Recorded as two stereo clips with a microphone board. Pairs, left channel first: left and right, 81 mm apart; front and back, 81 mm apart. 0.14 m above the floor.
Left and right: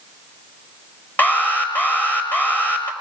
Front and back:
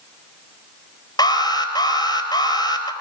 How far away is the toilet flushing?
I don't hear a toilet flushing.